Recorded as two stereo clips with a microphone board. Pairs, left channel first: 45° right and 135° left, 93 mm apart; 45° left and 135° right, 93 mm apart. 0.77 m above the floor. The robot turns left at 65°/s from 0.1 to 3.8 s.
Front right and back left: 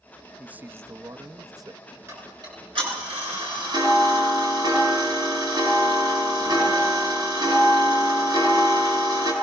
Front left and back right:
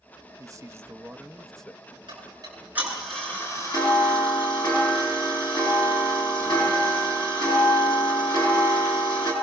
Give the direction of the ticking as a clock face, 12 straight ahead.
5 o'clock.